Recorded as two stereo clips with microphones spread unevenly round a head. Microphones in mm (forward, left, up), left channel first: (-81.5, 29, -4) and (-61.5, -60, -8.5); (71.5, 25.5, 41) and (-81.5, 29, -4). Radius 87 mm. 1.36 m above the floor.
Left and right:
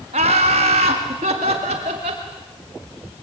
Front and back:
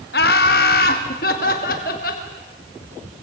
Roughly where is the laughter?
Ahead right.